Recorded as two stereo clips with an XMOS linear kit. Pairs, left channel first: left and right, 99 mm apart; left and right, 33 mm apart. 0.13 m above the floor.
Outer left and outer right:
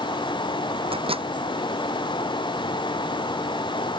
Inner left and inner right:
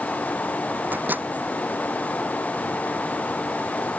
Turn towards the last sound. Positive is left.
turn(degrees=-70)  # may be behind; listen again after turning